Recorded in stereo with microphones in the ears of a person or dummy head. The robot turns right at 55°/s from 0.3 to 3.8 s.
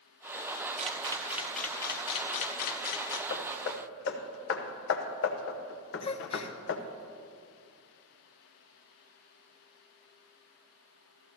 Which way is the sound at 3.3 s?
55° left (ahead or behind).